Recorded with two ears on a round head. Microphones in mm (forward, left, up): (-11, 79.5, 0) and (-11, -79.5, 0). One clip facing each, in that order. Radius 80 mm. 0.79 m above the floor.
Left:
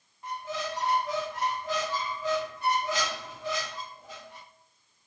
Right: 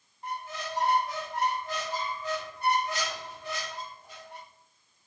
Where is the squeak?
60° left (ahead or behind), 0.8 m.